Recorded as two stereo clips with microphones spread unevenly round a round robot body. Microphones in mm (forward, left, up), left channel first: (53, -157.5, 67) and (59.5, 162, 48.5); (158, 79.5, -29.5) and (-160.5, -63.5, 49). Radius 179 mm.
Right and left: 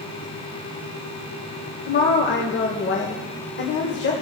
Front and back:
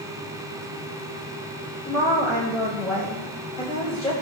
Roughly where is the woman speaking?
Ahead right.